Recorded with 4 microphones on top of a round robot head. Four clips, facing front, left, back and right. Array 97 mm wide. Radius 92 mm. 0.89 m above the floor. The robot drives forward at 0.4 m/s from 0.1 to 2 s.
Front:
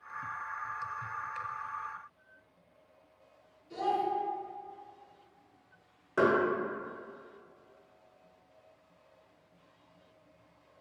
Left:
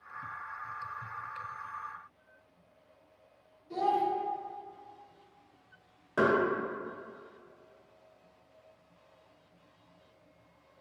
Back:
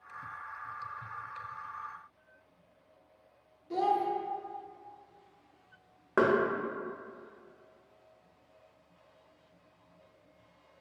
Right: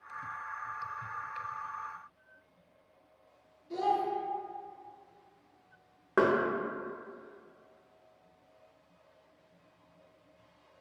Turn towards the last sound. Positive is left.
turn(degrees=-140)